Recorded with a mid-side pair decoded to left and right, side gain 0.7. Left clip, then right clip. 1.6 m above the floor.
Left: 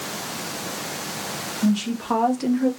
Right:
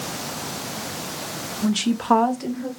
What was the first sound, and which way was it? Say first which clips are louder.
A woman speaking: right 4 dB; 60° right.